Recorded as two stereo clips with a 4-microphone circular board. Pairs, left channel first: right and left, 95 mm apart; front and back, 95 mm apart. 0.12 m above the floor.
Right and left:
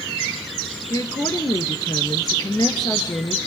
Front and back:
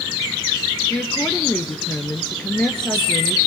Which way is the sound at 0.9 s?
75° right.